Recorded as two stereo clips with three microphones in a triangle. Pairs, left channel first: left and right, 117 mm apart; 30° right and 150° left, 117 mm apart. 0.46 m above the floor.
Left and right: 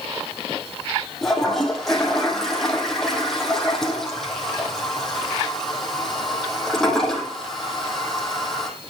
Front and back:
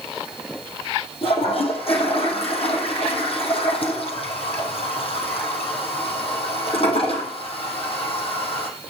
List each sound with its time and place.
1.2 s a toilet flushing: 5° left, 3.5 m